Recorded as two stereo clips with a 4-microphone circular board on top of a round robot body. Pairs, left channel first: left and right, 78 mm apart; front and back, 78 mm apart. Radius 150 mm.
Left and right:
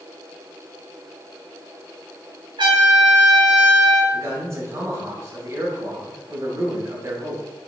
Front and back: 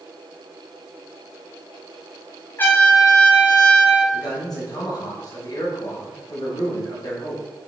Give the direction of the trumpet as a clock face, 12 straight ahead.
2 o'clock.